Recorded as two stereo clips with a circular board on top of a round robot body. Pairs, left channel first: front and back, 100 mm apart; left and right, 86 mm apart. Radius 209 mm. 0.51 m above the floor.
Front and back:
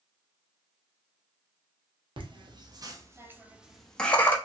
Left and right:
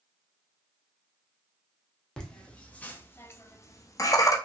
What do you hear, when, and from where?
2.2 s laughter: 170° left, 1.3 m; by 4.3 s 60° left, 1.0 m